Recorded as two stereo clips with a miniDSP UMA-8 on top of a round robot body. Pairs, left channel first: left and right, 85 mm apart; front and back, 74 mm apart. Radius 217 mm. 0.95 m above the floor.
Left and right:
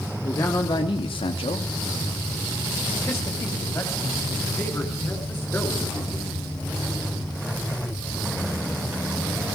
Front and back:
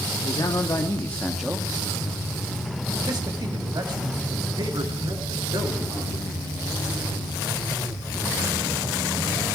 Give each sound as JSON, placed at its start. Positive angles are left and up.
{"t": 0.2, "sound": "a man speaking", "azimuth_deg": 30, "distance_m": 1.0}